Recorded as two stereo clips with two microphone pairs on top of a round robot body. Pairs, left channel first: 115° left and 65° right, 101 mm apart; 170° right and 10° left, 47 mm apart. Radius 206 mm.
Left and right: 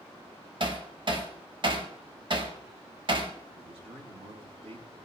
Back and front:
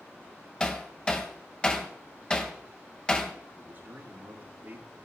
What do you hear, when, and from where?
0.6 s hammering: 100° right, 1.9 m
3.5 s a man speaking: 45° right, 5.5 m